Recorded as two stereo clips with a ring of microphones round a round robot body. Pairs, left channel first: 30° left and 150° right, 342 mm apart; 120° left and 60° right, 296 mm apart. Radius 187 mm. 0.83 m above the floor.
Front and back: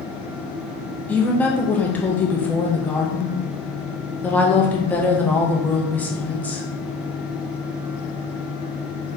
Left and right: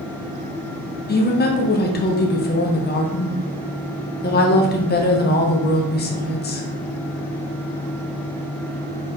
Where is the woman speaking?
110° left, 0.7 m.